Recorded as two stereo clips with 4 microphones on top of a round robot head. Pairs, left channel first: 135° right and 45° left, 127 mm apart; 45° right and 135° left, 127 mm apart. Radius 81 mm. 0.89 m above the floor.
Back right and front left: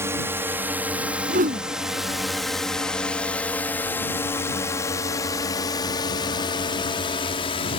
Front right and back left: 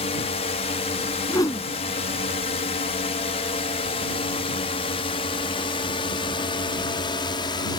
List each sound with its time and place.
0.0 s a drone: 20° right; by 7.8 s 95° right
1.3 s a whoosh: 20° left